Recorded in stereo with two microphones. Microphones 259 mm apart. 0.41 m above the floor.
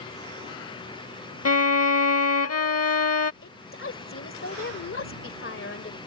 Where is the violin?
65° left (ahead or behind).